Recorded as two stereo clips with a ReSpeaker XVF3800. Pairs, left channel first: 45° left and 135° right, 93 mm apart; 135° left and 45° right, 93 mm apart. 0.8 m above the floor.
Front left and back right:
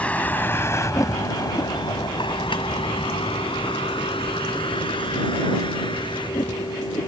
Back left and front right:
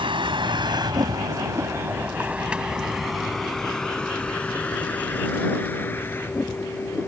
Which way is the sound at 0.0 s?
30° right.